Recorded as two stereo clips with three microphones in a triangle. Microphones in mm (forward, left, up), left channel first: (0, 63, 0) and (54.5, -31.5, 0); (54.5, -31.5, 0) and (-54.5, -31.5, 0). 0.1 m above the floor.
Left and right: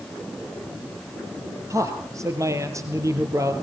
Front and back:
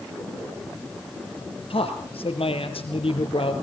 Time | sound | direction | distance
1.7 | a man speaking | 5° right | 2.5 m